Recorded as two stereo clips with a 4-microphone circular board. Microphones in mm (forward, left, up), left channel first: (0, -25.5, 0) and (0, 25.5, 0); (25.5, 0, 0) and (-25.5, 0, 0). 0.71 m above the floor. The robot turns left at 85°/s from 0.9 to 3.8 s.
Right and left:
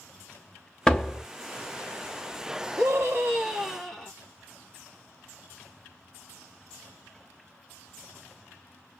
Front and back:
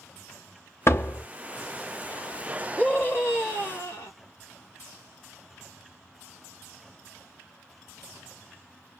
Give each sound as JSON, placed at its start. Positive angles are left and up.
{"t": 0.9, "sound": "a door slam", "azimuth_deg": -20, "distance_m": 0.8}
{"t": 2.8, "sound": "a scream", "azimuth_deg": 80, "distance_m": 1.1}